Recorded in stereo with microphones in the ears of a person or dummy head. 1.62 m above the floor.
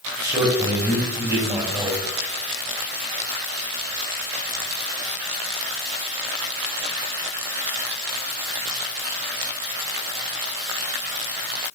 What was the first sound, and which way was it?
A man speaking, 15° right (ahead or behind).